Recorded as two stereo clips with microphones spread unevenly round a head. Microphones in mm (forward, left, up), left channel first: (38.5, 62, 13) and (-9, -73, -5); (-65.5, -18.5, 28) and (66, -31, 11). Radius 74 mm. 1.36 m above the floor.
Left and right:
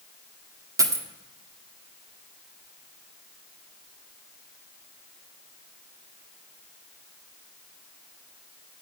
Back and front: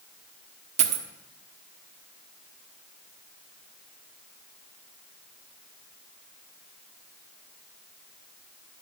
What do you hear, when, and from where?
0.8 s a dropped coin: 40° right, 1.3 m